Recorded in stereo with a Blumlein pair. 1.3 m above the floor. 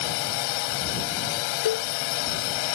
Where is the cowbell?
60° left.